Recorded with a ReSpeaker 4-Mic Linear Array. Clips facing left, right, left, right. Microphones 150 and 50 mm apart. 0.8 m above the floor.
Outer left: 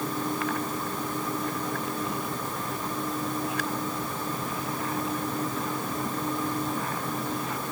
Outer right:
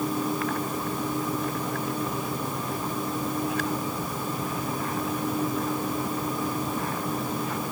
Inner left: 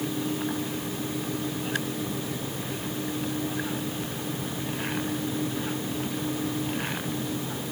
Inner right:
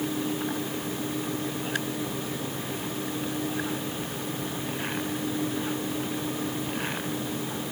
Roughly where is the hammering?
I don't hear hammering.